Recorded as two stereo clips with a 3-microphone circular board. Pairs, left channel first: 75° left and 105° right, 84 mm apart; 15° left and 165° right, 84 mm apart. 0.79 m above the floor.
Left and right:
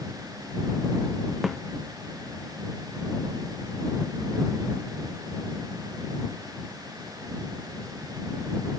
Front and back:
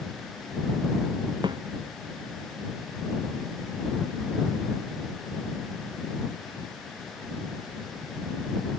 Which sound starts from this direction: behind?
A snare drum, at 1.4 s.